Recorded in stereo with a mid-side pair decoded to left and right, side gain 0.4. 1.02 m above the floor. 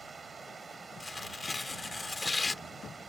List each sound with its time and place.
0.0 s running water: 40° right
1.0 s tearing paper: 20° left